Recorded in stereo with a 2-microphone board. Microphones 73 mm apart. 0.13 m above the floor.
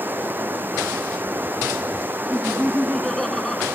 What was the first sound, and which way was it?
Running water, 25° right (ahead or behind).